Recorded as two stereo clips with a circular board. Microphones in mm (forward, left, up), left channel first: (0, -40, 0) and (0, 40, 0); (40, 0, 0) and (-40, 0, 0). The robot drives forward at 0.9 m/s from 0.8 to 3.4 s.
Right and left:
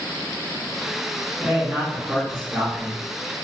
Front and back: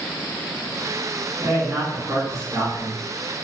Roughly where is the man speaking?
Behind.